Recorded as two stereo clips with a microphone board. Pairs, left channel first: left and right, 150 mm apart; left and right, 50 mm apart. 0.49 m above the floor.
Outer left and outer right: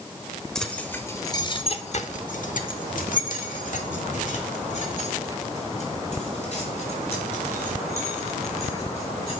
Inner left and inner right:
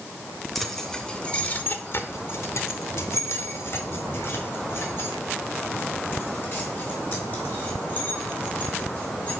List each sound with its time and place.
0.6 s keys jangling: 5° left (ahead or behind), 1.1 m; by 9.4 s 45° left (ahead or behind), 4.5 m